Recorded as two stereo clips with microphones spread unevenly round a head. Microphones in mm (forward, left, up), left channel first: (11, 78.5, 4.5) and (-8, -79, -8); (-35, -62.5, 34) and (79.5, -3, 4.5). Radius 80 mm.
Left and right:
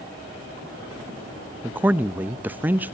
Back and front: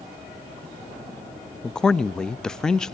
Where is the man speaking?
45° right, 0.6 m.